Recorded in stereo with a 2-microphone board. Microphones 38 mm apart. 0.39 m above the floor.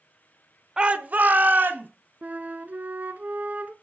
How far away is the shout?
About 0.8 m.